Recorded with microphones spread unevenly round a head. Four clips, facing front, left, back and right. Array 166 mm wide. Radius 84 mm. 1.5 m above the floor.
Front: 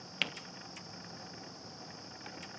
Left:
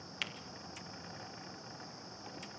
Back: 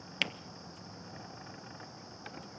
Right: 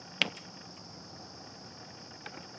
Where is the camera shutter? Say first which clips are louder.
Right 11 dB, back 2 dB; 100° right, 0.7 m.